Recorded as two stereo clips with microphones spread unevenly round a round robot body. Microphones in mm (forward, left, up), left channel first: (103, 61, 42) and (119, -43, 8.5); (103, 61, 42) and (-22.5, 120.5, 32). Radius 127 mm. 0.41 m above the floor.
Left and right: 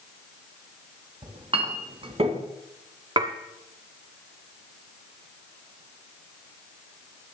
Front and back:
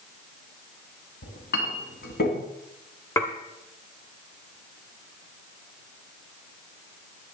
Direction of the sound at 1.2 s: 55° right.